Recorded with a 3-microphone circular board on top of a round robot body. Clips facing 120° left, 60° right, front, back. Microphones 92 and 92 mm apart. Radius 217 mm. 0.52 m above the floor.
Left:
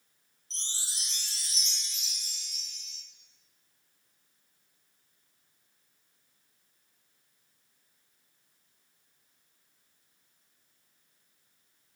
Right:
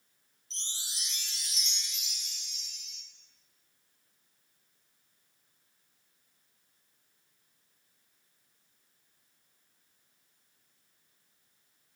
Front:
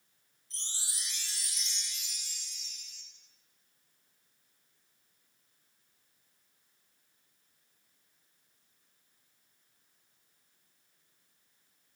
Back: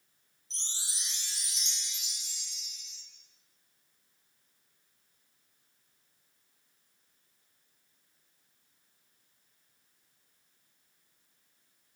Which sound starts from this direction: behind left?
A chime, at 0.5 s.